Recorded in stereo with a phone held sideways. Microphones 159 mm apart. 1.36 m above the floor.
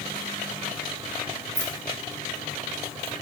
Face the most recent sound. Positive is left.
turn(degrees=80)